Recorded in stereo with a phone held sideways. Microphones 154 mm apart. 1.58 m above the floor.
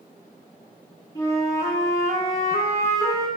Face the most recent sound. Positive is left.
turn(degrees=20)  # may be behind; listen again after turning